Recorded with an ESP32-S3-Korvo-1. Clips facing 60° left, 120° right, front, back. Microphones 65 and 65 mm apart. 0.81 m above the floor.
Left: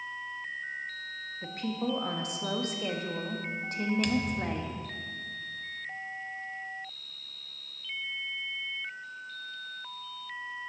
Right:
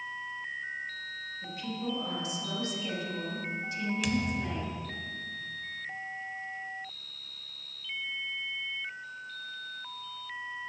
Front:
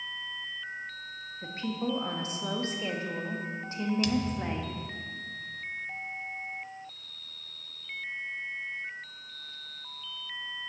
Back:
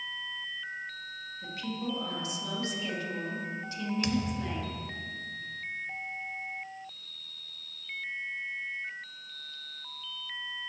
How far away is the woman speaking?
About 1.0 m.